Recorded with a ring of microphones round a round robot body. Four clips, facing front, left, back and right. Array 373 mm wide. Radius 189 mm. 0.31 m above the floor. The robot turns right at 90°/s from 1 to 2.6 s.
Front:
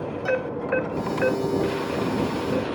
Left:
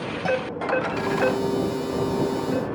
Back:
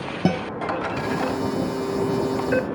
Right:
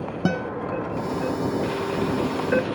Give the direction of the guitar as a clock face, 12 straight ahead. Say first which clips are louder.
Left 1 dB, back 2 dB; 5 o'clock.